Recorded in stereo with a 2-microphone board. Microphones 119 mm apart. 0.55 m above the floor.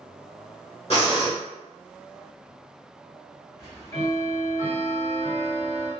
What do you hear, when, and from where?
0.9 s breathing: 60° left (ahead or behind), 1.9 m
3.6 s ticking: 35° left (ahead or behind), 1.8 m